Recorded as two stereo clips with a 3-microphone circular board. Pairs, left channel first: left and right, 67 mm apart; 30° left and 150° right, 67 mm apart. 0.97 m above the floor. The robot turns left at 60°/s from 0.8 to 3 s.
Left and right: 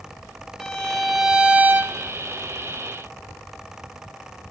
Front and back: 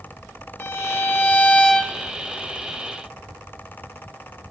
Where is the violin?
15° left, 0.6 m; by 1.9 s 55° right, 0.6 m.